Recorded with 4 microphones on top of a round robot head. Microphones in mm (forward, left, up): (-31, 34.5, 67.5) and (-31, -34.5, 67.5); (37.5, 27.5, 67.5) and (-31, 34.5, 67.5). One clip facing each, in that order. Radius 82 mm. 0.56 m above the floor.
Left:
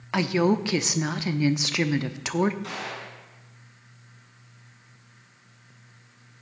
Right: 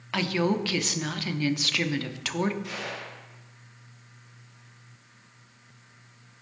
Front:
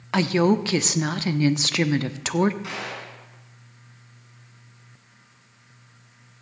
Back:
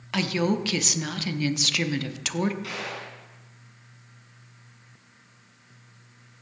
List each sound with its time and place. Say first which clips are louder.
0.1 s a woman speaking: left 4 dB, front 5 dB; 30° left, 1.0 m
2.6 s a gunshot: left 1 dB, front 1 dB; 55° left, 7 m